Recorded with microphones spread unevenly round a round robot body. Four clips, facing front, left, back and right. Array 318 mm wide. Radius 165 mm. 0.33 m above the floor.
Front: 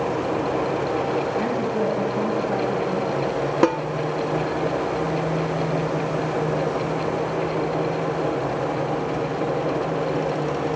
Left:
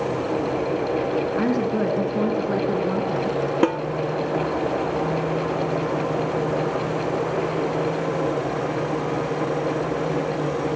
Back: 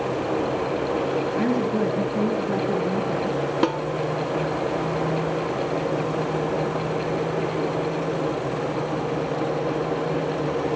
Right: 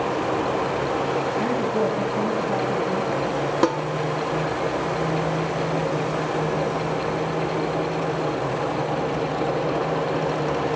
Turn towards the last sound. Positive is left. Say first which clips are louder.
# even, front 5 dB
turn(degrees=0)